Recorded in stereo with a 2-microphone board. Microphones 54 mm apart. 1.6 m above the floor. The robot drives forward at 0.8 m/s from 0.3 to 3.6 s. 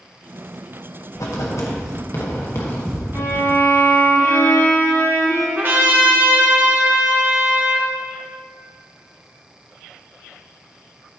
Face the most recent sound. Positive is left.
turn(degrees=-45)  # may be behind; listen again after turning